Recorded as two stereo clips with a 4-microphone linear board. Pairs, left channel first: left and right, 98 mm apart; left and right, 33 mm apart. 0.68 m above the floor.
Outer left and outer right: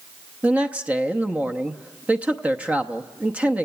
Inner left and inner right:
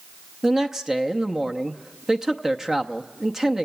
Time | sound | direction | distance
0.4 | a man speaking | 15° right (ahead or behind) | 0.7 m